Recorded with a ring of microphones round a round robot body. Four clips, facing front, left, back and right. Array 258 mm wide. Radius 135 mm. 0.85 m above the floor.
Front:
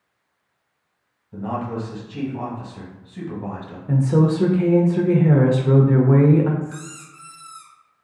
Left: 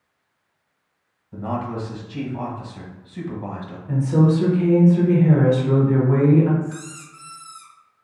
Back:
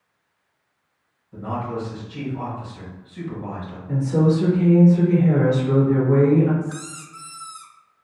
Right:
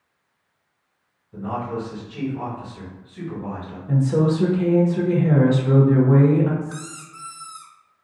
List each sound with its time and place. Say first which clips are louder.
1.3 s a man speaking: even, front 1 dB; 65° left, 1.3 m
3.9 s a woman speaking: left 1 dB, front 1 dB; 15° right, 0.9 m
6.6 s a squeak: left 1 dB, back 1 dB; 150° right, 0.6 m